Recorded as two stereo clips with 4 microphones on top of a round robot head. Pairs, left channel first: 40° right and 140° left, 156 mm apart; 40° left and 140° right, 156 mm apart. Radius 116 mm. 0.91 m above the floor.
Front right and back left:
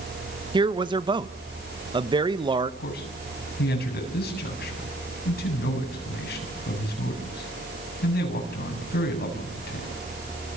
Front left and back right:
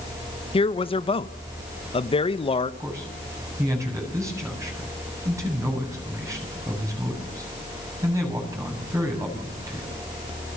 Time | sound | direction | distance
0.5 | a man speaking | 85° left | 1.2 m
2.8 | a man speaking | 65° right | 8.5 m